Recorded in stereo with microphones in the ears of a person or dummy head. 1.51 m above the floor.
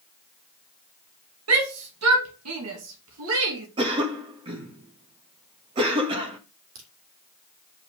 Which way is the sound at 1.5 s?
80° right.